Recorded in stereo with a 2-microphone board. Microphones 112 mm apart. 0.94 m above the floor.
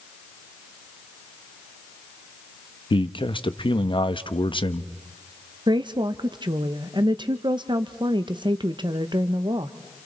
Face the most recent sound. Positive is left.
turn(degrees=-45)  # may be behind; listen again after turning